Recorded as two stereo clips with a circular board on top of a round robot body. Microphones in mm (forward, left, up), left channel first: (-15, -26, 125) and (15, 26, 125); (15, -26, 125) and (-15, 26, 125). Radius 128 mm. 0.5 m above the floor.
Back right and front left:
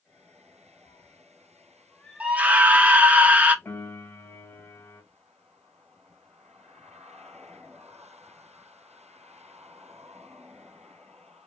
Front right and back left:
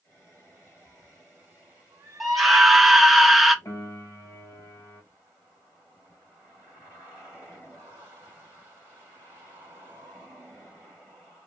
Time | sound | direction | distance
0.8 | a cat meowing | 145° right | 0.9 m
2.2 | a scream | 35° left | 0.7 m
3.6 | a piano | 75° right | 1.6 m